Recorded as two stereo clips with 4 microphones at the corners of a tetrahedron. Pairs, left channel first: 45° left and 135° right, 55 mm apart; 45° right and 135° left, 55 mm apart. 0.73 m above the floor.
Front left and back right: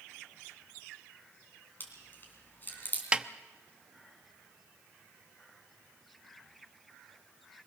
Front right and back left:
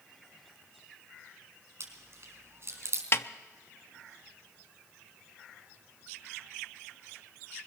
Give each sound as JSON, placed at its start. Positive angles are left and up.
{"t": 1.8, "sound": "chewing", "azimuth_deg": 100, "distance_m": 4.0}
{"t": 3.1, "sound": "a snare drum", "azimuth_deg": -70, "distance_m": 0.7}